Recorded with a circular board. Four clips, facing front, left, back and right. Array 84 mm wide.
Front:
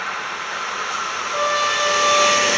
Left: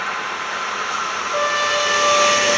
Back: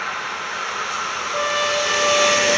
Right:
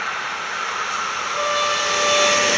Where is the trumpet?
85° left, 2.0 m.